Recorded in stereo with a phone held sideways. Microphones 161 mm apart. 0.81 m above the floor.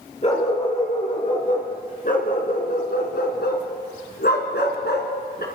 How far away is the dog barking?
About 5.5 m.